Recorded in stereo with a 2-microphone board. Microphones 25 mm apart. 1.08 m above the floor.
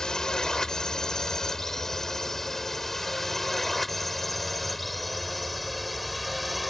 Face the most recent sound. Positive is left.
turn(degrees=-5)  # may be behind; listen again after turning